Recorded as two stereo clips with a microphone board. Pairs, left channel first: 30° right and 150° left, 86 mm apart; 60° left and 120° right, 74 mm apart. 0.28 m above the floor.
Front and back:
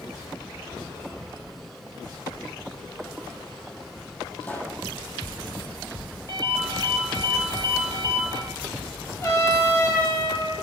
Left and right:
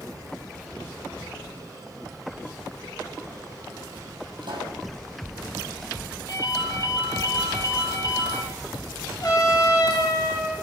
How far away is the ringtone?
About 5 m.